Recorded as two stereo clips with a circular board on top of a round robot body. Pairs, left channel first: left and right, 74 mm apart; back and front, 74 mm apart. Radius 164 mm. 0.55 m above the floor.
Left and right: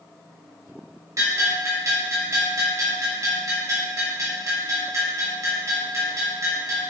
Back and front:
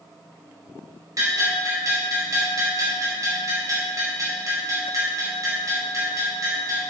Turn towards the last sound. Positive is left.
turn(degrees=-45)